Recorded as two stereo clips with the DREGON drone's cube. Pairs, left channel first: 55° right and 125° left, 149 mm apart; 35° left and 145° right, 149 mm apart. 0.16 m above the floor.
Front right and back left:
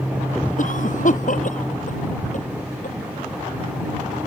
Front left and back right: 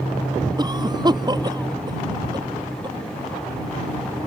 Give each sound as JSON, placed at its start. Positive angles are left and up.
{"t": 0.6, "sound": "a cough", "azimuth_deg": -85}